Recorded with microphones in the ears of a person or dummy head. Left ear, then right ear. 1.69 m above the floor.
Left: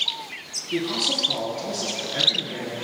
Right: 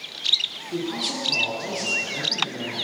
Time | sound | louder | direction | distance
0.7 | a man speaking | left 8 dB | 65° left (ahead or behind) | 3.5 m